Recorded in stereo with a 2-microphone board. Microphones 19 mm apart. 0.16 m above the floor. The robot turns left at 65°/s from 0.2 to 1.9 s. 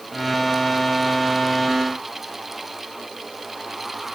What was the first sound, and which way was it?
Only background noise.